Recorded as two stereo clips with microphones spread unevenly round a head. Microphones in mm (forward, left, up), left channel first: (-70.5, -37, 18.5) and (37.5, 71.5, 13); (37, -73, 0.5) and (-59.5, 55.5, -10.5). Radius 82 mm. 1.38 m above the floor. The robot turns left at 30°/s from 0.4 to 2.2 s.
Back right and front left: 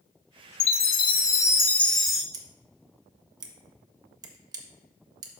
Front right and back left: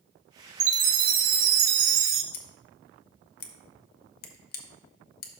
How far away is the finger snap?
I don't hear a finger snap.